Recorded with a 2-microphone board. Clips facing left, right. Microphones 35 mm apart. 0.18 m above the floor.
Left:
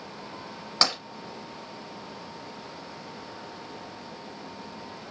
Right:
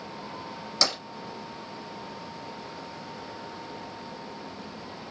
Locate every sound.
0.8 s tapping: 35° left (ahead or behind), 1.4 m